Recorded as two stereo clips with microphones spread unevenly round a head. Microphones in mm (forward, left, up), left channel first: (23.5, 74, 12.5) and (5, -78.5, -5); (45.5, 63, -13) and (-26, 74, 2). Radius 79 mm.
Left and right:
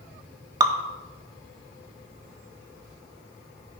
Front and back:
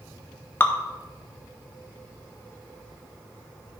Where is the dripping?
55° right, 0.7 m.